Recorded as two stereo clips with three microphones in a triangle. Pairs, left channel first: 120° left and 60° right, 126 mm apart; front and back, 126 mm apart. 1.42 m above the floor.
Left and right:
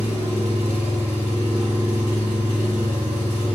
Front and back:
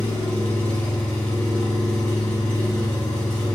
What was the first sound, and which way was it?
An engine running, 75° right.